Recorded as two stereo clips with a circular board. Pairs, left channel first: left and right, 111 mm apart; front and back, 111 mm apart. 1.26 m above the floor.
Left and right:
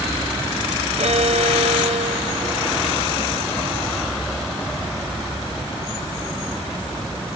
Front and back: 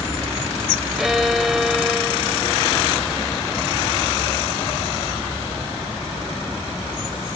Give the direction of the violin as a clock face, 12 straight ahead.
3 o'clock.